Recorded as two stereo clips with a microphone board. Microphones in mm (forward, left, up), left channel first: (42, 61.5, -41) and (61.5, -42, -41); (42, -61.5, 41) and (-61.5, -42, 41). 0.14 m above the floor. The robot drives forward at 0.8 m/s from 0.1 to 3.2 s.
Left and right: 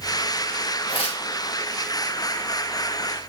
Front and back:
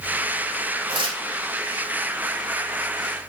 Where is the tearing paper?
135° left, 6.5 m.